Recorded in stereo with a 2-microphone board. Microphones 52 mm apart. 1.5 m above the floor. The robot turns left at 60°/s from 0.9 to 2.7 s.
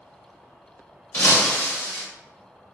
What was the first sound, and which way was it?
An insect, 30° right.